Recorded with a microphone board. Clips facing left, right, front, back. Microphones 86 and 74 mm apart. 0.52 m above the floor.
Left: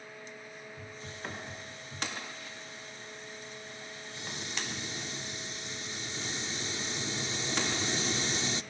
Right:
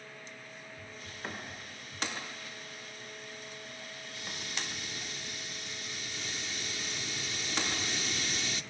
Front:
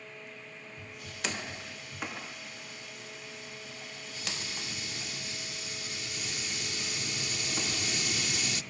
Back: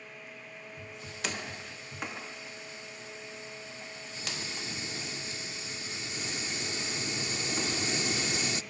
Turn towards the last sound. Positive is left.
turn(degrees=135)